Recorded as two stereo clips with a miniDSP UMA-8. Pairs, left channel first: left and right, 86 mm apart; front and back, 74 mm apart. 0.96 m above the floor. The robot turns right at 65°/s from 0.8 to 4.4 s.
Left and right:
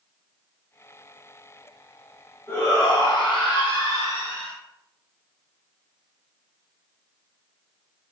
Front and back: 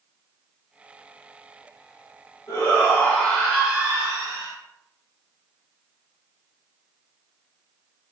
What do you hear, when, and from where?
2.5 s a shout: 25° left, 1.5 m; by 4.5 s 150° left, 1.5 m